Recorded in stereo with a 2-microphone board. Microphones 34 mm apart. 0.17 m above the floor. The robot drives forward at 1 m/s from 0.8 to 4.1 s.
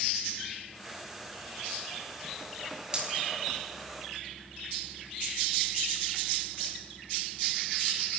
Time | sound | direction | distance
2.9 | a dropped coin | 20° right (ahead or behind) | 6 m